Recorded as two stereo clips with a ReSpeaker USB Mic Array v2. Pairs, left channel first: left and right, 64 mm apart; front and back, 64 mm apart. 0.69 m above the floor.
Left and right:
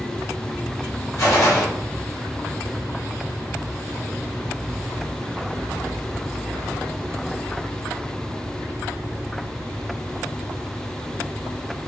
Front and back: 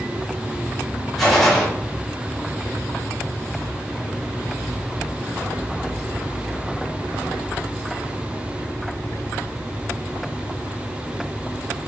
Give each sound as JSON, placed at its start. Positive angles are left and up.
{"t": 1.2, "sound": "a gunshot", "azimuth_deg": 85, "distance_m": 1.4}